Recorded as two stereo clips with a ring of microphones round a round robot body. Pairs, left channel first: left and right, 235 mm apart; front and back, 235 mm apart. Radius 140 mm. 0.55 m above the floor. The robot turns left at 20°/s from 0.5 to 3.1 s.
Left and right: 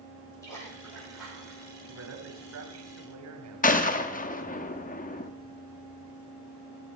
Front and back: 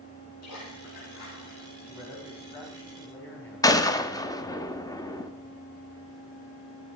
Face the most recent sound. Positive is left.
turn(degrees=65)